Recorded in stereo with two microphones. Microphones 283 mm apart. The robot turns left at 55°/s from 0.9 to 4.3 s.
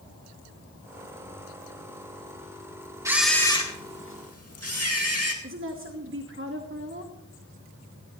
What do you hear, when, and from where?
3.0 s a camera shutter: 170° right, 2 m; by 5.3 s 120° left, 2 m
5.4 s a woman speaking: 40° right (ahead or behind), 1.2 m